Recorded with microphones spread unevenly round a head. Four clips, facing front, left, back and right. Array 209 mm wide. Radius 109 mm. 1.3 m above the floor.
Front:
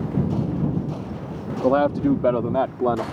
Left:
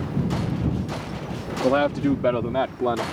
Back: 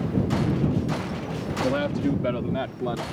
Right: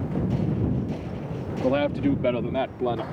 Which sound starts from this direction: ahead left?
A man speaking, at 1.6 s.